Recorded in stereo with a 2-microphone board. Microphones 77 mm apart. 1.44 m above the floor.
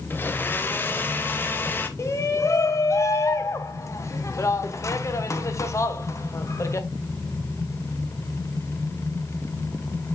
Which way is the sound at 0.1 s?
25° left (ahead or behind).